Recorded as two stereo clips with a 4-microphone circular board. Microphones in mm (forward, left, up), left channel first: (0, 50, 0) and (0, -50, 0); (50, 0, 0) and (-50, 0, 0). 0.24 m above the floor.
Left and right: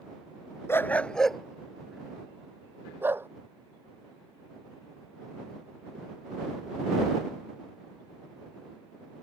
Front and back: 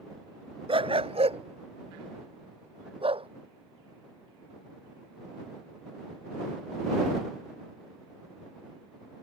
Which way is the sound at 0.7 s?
155° left.